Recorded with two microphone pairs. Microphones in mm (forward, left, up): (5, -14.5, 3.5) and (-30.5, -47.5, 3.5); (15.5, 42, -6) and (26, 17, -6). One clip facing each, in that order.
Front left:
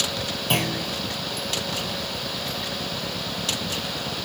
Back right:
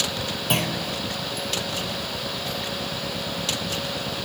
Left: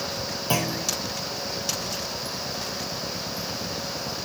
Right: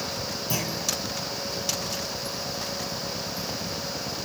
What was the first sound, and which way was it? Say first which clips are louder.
A clunk: front left 1 dB, left 4 dB; 140° left.